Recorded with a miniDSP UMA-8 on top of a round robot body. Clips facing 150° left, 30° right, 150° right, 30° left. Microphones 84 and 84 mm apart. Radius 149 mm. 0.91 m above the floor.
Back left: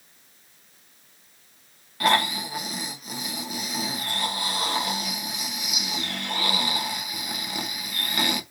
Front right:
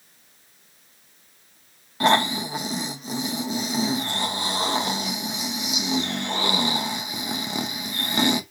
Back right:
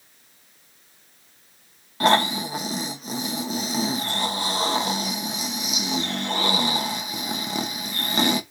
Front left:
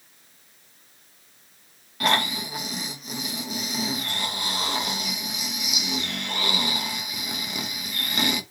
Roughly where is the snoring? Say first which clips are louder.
Front right 3 dB, back right 5 dB; right.